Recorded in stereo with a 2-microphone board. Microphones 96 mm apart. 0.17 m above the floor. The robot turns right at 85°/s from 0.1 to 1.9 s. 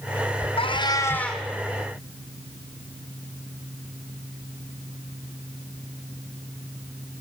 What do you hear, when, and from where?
0.6 s a cat meowing: 110° left, 2.5 m; by 1.4 s 175° right, 2.5 m